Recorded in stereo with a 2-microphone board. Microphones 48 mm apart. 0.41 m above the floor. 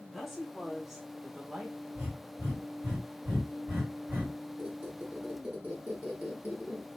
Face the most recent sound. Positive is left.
turn(degrees=-30)  # may be behind; listen again after turning